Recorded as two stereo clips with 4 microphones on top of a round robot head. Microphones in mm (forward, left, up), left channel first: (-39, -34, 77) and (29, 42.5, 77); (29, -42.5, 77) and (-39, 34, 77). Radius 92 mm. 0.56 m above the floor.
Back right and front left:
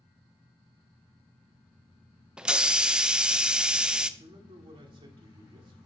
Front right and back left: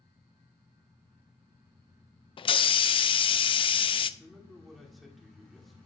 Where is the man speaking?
40° left, 1.9 m.